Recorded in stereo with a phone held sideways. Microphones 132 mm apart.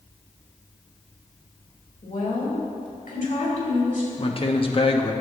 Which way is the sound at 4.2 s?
45° left (ahead or behind).